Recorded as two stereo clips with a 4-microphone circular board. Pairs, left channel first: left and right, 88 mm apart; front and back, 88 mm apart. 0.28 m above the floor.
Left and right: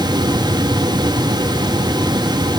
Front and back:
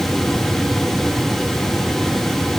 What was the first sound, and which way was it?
Only background noise.